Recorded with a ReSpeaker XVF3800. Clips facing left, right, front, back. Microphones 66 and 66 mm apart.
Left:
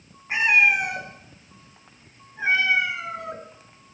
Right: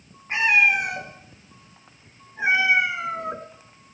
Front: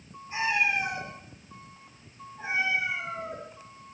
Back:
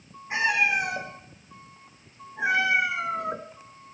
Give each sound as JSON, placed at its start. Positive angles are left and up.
{"t": 0.3, "sound": "a cat meowing", "azimuth_deg": 175, "distance_m": 3.0}